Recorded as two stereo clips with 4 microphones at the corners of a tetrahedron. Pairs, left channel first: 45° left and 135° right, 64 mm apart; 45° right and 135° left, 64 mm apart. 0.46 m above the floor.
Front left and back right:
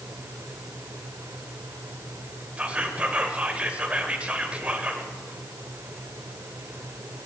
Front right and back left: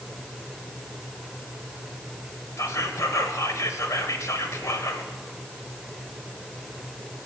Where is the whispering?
70° right, 1.4 m.